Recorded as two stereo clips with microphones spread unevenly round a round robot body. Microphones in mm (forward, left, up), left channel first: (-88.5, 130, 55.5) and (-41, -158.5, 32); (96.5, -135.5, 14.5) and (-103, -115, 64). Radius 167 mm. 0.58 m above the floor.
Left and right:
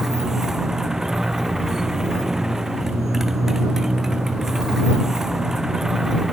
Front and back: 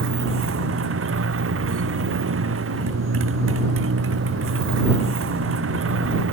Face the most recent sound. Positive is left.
turn(degrees=-170)